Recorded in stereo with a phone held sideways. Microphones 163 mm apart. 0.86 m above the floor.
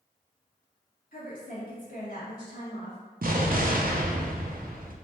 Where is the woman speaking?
65° left (ahead or behind), 1.8 m.